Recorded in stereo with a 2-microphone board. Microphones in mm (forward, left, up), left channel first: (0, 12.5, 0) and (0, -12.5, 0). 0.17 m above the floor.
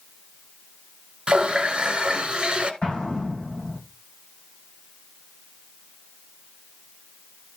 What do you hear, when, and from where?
1.3 s a running tap: 40° right (ahead or behind), 1.5 m
2.8 s an explosion: 50° left (ahead or behind), 9 m